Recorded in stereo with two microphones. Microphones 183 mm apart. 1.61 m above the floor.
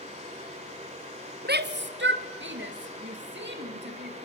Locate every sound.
1.4 s a shout: 60° right (ahead or behind), 1.4 m; by 4.2 s 70° right (ahead or behind), 4 m